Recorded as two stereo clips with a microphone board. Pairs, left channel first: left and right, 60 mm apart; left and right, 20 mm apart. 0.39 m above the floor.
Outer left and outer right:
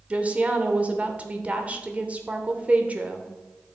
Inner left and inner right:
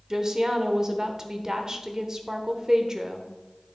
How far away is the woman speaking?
About 0.9 m.